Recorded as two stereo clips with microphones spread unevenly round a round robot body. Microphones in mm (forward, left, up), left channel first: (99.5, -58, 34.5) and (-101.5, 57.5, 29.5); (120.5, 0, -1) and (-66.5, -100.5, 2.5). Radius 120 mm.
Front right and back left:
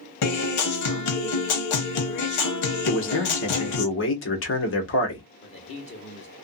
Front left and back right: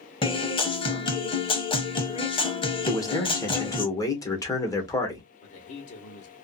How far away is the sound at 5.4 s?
About 1.1 m.